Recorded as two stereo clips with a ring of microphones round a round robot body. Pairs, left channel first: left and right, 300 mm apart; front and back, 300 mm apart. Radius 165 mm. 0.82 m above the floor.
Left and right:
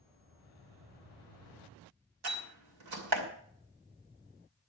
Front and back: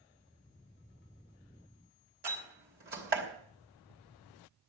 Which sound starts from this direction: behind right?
A door slam, at 2.2 s.